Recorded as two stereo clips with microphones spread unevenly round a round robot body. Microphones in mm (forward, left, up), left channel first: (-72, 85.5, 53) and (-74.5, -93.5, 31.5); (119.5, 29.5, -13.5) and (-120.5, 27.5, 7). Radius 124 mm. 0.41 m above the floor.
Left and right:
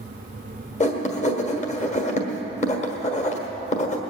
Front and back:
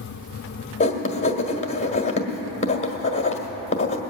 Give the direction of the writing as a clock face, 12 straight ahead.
10 o'clock.